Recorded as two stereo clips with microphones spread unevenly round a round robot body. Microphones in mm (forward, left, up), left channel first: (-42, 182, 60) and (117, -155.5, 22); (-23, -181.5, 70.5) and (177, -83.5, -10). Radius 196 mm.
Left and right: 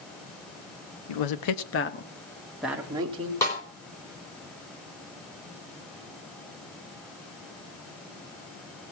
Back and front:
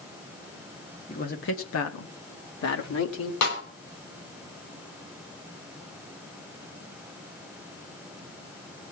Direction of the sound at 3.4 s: 160° right.